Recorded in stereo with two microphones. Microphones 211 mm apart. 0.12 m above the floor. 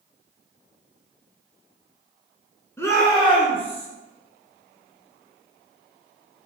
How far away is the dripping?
No dripping in this recording.